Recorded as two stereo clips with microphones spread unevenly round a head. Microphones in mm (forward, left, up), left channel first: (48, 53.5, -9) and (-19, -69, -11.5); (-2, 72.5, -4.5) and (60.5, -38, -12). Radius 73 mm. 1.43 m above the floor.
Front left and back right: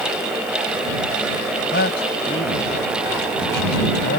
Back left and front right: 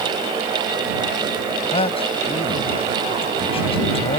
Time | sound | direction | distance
1.7 | a man speaking | 75° left | ?